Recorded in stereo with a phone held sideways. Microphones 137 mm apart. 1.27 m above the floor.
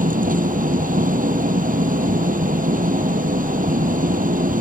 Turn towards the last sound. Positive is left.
turn(degrees=-80)